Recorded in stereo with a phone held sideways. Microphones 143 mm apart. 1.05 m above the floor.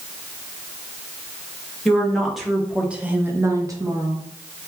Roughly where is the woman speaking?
Centre.